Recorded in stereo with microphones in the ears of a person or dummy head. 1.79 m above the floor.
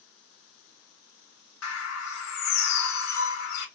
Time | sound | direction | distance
1.6 | a bird | 75° left (ahead or behind) | 1.8 m